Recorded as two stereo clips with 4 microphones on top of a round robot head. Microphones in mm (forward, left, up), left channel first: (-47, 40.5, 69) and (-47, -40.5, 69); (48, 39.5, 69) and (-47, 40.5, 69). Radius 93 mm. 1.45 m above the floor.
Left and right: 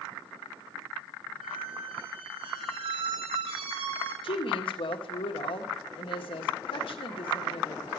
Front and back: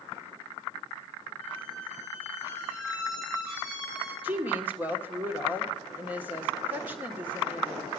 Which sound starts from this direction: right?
A squeak, at 1.4 s.